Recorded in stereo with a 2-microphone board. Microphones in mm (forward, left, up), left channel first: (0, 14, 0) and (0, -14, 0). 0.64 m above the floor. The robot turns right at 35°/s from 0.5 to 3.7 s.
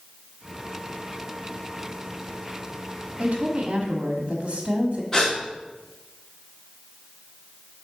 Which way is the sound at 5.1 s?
20° left (ahead or behind).